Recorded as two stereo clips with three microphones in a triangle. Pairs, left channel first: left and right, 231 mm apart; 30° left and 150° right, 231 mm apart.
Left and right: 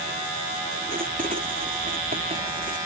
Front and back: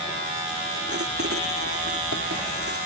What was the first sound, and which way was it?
Writing, 145° right.